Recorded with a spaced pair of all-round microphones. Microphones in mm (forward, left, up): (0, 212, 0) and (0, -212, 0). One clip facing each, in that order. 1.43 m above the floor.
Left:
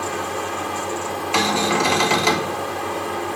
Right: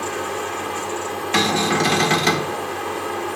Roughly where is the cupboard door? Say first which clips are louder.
Right 1 dB; right.